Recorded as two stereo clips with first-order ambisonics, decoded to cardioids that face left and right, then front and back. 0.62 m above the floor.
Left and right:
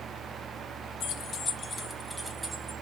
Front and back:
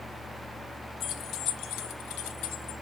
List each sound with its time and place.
1.0 s keys jangling: 45° left, 0.8 m; by 2.8 s 15° right, 1.2 m